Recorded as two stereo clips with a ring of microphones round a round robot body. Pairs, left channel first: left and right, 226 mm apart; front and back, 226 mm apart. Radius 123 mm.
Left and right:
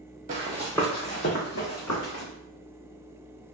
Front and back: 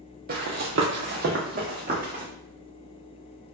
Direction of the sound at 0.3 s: 140° right.